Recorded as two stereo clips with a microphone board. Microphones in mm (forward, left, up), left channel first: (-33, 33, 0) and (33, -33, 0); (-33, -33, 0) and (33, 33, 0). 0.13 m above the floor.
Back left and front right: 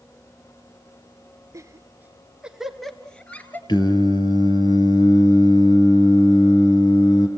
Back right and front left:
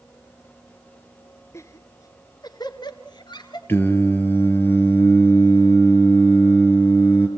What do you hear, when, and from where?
1.5 s laughter: 85° right, 1.6 m; by 3.6 s 160° right, 2.0 m
3.7 s singing: 160° left, 3 m